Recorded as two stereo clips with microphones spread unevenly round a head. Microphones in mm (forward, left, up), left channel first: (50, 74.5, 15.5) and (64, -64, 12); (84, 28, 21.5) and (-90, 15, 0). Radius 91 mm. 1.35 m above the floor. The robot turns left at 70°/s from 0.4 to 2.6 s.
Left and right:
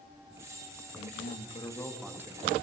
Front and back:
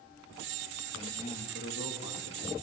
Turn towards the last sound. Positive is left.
turn(degrees=-35)